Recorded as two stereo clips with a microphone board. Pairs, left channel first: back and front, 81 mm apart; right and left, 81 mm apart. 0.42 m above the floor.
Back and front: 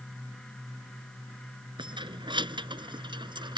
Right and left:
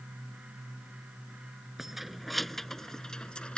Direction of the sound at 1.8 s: Straight ahead.